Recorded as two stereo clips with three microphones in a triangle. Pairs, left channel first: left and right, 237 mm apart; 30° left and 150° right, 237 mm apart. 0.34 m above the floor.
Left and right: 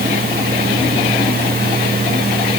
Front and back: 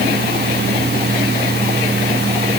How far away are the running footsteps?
No running footsteps in this recording.